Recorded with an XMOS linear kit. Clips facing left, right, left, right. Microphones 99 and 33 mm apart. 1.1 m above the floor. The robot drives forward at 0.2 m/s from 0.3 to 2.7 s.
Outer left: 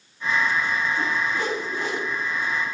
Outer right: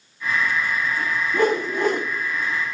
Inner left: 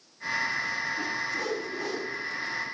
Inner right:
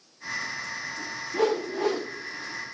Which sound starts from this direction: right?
A whoosh, at 1.3 s.